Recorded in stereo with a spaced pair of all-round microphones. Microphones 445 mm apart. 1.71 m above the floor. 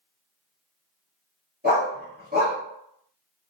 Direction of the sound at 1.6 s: 20° right (ahead or behind).